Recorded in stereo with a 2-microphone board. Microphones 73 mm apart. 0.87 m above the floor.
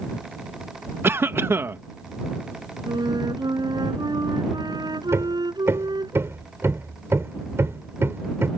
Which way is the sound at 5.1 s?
35° right (ahead or behind).